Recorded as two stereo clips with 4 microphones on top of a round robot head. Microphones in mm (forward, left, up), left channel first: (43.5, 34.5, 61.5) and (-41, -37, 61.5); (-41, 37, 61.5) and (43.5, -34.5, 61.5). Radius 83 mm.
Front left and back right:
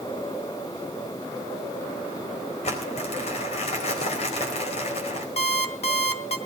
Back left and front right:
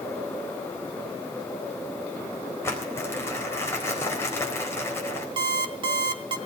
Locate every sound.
2.6 s crumpling: 70° left, 4 m
5.4 s an alarm clock: 10° left, 1.7 m